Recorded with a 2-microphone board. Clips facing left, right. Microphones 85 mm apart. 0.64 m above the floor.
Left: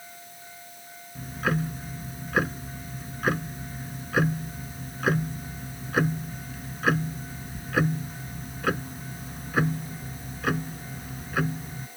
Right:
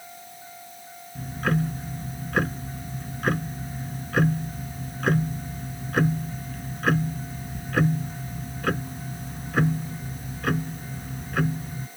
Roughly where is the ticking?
Centre.